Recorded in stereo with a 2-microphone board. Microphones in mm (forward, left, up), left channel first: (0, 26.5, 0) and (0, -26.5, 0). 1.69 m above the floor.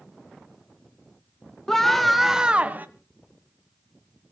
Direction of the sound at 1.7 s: 10° left (ahead or behind).